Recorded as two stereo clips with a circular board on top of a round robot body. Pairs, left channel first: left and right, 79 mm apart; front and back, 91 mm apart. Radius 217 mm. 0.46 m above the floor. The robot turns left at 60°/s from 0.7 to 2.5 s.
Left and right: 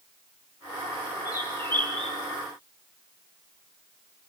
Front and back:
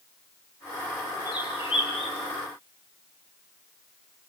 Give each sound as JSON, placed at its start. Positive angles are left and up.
{"t": 1.2, "sound": "a bird", "azimuth_deg": 55, "distance_m": 10.0}